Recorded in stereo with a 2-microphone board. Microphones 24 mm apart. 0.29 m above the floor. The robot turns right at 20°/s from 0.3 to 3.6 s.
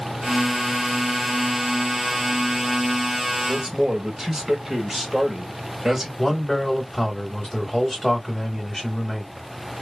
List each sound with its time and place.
3.5 s a man speaking: 10° right (ahead or behind), 1.0 m
6.2 s a man speaking: 25° left (ahead or behind), 1.5 m